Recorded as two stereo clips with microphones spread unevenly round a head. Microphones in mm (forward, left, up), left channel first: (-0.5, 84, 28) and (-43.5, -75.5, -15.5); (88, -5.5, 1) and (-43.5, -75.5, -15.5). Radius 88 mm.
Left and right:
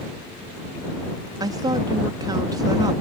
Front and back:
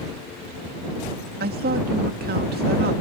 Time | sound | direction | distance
1.4 | a woman speaking | 165° right | ?